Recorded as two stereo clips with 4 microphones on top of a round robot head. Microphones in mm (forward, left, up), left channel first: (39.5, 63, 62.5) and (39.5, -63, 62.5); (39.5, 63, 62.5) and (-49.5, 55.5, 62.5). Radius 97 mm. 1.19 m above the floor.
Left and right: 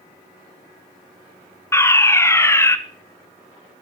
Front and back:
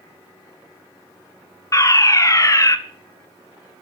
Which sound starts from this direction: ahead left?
A fire alarm, at 1.7 s.